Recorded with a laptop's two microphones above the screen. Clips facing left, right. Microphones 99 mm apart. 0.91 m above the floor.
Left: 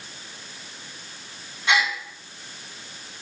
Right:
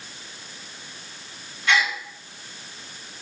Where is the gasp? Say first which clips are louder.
Even; 20° left (ahead or behind), 2.5 m.